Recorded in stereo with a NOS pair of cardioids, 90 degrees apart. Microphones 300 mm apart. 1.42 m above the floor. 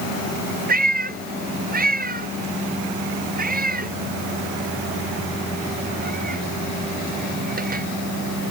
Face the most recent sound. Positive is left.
turn(degrees=-30)